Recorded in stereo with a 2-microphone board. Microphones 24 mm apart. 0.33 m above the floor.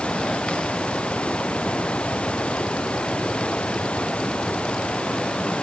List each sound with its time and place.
0.0 s running water: 45° left (ahead or behind)